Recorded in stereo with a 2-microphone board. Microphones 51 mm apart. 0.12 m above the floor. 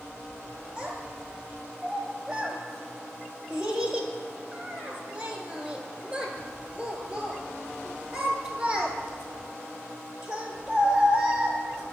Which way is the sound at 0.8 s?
20° right (ahead or behind).